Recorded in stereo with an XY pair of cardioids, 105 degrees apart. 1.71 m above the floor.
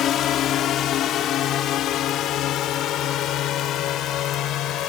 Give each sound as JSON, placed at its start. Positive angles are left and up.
{"t": 0.0, "sound": "a drone", "azimuth_deg": 65}